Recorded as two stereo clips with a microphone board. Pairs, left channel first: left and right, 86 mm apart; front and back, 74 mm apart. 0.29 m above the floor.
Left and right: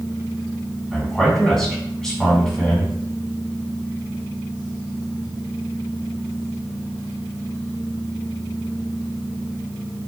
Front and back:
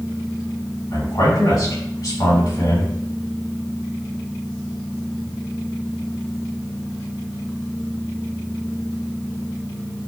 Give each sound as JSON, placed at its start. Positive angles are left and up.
{"t": 0.9, "sound": "a man speaking", "azimuth_deg": 10, "distance_m": 2.5}